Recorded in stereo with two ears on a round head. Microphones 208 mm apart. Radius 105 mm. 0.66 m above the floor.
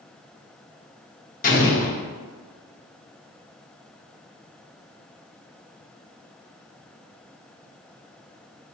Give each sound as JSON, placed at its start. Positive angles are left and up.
{"t": 1.4, "sound": "an explosion", "side_deg": 35, "distance_m": 0.7}